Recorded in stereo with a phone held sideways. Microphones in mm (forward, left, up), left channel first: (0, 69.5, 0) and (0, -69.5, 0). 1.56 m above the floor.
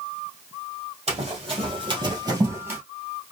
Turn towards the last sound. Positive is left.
turn(degrees=-10)  # may be behind; listen again after turning